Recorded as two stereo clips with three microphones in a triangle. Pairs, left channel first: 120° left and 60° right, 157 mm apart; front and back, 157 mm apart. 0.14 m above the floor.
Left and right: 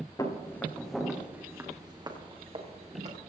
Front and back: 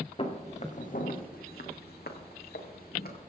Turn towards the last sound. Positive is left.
turn(degrees=-15)